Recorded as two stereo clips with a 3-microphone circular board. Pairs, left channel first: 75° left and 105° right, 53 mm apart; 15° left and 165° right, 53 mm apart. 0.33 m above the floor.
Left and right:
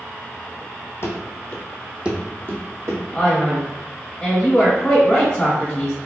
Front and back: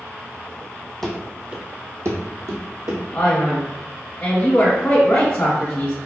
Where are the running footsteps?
100° left, 0.7 m; by 3.0 s 140° right, 1.1 m.